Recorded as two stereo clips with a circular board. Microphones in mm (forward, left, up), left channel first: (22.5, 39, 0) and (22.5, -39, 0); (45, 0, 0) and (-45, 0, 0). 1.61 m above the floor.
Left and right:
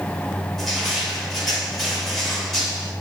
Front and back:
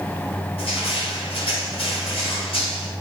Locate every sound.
0.6 s crushing: straight ahead, 8.5 m